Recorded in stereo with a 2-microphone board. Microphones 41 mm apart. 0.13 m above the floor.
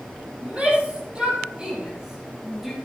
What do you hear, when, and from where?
0.4 s a shout: 35° right (ahead or behind), 4.5 m; by 2.8 s 5° right (ahead or behind), 3.5 m